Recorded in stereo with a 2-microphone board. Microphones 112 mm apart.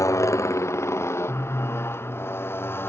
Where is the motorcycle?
25° left (ahead or behind); by 2.9 s 20° left (ahead or behind).